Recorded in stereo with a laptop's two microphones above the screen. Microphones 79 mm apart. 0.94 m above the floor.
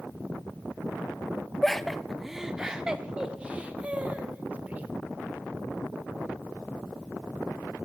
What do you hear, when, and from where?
1.6 s laughter: 5° left (ahead or behind), 0.9 m; by 4.9 s 20° right (ahead or behind), 2.5 m